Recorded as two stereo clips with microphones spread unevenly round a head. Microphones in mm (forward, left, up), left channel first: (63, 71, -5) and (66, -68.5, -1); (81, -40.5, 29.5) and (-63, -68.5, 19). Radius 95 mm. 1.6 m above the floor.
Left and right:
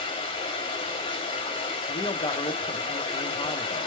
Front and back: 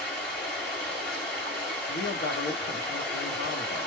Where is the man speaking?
35° left, 1.0 m.